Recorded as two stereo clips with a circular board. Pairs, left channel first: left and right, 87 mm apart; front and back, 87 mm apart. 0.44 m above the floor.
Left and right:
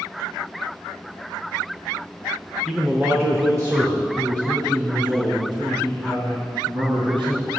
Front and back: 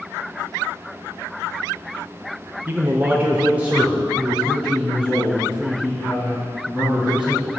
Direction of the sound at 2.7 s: Straight behind.